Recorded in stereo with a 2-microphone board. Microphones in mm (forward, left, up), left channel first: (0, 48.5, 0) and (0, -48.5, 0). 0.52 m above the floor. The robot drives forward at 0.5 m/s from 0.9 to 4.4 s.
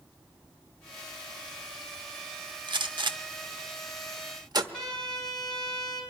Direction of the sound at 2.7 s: 55° right (ahead or behind).